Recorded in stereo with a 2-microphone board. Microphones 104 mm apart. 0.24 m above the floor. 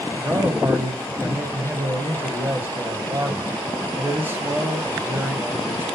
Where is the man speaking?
20° right (ahead or behind), 0.9 m.